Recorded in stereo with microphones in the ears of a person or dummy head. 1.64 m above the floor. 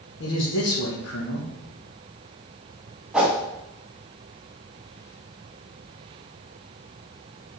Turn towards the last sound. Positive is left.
turn(degrees=-5)  # may be behind; listen again after turning